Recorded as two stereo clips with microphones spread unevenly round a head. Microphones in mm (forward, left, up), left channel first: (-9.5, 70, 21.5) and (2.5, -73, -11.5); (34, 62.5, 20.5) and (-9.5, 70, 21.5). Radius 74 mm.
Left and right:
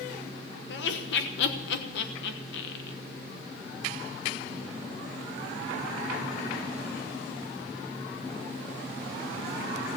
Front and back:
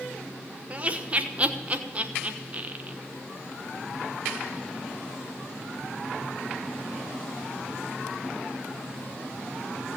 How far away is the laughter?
About 1.2 m.